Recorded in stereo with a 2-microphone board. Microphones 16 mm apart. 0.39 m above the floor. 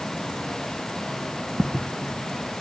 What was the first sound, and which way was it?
Footsteps, 65° right (ahead or behind).